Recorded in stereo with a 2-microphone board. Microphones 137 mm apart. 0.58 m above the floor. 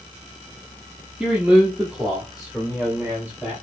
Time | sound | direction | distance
1.2 | a man speaking | 5° right (ahead or behind) | 0.8 m